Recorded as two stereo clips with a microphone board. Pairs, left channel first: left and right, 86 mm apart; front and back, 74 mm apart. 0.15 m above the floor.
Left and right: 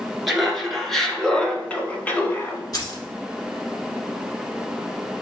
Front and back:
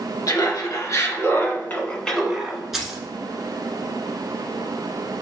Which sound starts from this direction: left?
Keys jangling, at 2.7 s.